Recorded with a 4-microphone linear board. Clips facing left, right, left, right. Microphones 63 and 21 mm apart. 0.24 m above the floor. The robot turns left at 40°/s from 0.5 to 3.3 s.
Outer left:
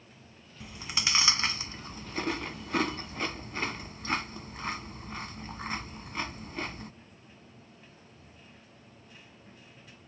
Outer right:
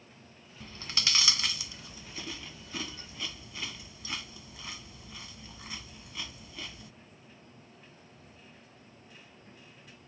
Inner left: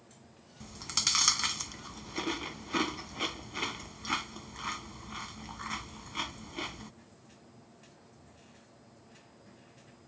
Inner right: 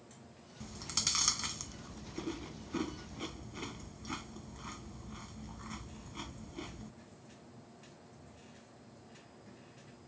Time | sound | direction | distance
0.6 | chewing | 10° left (ahead or behind) | ?